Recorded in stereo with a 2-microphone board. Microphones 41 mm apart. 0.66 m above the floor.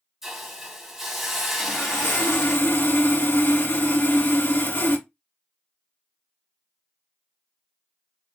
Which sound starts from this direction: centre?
A hiss, at 0.2 s.